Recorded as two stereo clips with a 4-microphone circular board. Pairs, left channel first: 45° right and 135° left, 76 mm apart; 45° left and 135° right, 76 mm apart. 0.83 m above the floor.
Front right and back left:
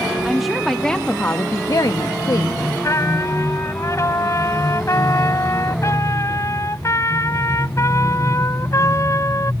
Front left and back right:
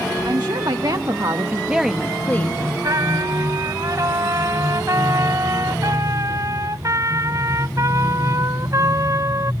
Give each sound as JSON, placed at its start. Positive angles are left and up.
{"t": 0.2, "sound": "a woman speaking", "azimuth_deg": -140}
{"t": 2.8, "sound": "a trumpet", "azimuth_deg": -95}